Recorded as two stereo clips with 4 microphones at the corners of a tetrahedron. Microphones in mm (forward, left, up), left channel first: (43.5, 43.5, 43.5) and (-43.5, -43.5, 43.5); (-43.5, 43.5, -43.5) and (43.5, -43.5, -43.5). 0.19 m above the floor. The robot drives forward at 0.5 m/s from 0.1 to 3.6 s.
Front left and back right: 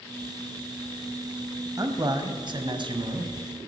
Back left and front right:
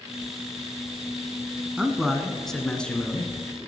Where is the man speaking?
120° right, 1.2 m; by 3.3 s 155° right, 1.6 m.